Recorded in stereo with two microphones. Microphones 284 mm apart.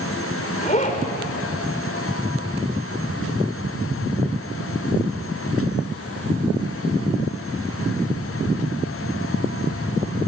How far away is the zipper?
About 2.5 m.